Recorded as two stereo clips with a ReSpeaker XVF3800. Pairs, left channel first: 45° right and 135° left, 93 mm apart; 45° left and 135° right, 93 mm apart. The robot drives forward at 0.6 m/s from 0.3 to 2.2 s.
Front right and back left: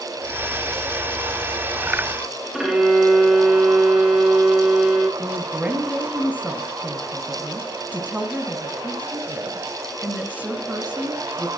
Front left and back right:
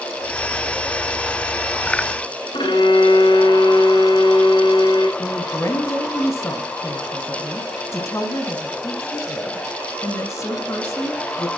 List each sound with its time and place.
2.5 s a violin: 50° left, 1.9 m
5.2 s a woman speaking: 70° left, 1.7 m